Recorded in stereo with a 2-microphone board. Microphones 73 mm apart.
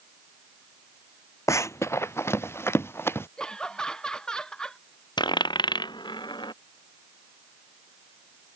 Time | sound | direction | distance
1.5 | running footsteps | 45° left (ahead or behind) | ?
3.4 | laughter | 10° left (ahead or behind) | ?
5.2 | a dropped coin | 90° left | ?